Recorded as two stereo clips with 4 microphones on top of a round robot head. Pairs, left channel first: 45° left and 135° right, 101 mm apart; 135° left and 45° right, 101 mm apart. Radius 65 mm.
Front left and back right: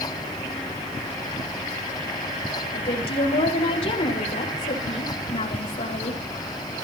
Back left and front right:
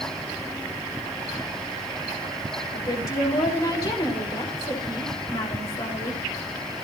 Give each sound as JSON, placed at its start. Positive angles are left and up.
{"t": 2.7, "sound": "a woman speaking", "azimuth_deg": 80, "distance_m": 5.0}